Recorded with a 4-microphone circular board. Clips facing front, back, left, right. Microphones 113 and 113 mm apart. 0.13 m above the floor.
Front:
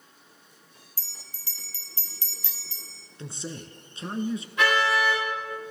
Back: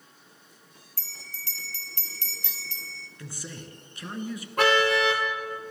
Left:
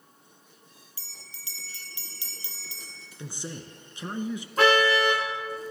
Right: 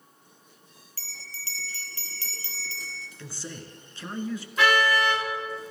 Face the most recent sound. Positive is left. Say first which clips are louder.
# back 2 dB, left 2 dB
turn(degrees=140)